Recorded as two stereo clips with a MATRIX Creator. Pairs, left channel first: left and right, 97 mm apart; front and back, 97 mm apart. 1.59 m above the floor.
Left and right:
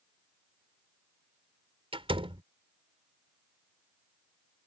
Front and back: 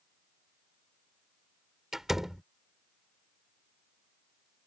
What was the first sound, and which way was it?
A door slam, 95° right.